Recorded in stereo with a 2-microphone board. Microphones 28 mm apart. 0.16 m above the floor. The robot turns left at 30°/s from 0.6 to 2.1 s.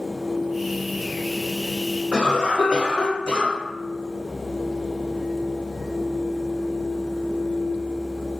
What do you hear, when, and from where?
2.1 s a cough: 35° left (ahead or behind), 1.7 m